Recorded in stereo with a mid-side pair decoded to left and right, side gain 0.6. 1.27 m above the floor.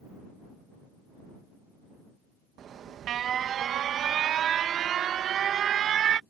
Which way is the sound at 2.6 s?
50° right.